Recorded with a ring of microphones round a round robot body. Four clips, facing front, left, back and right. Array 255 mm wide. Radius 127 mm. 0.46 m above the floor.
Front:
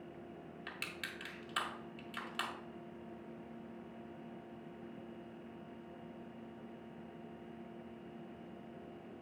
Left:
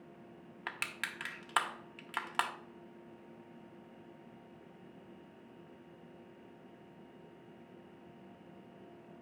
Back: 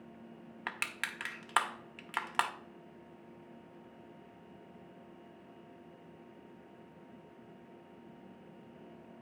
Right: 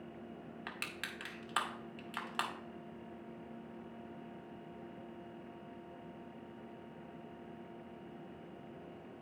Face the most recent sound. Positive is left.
turn(degrees=155)